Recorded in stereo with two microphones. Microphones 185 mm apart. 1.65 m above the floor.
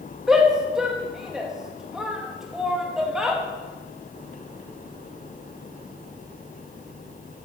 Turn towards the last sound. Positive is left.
turn(degrees=-5)  # may be behind; listen again after turning